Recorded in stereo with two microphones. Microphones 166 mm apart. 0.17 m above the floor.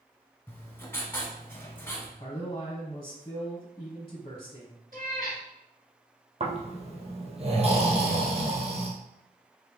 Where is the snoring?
40° right (ahead or behind), 1.1 m.